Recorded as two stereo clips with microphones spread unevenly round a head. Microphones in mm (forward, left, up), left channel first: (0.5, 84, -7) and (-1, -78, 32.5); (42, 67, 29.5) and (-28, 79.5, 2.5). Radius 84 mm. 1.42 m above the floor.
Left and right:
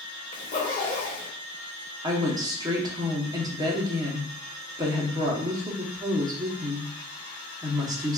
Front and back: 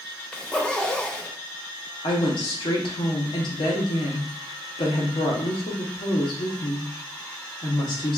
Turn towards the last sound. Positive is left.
turn(degrees=-20)